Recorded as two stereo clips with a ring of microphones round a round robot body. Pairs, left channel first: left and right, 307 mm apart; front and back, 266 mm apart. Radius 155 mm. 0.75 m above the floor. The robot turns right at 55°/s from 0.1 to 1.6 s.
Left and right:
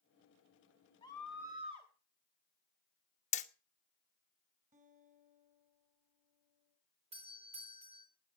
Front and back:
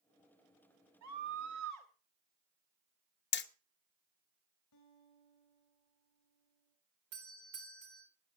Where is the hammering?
30° left, 0.8 m.